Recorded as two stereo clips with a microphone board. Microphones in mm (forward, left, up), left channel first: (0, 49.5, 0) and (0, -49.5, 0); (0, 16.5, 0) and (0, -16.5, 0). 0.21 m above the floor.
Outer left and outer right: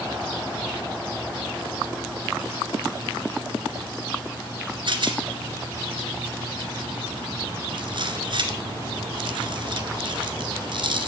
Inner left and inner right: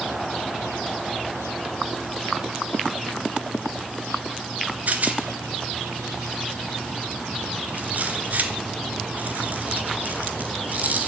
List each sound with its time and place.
4.9 s a rattle: 55° right (ahead or behind), 2.5 m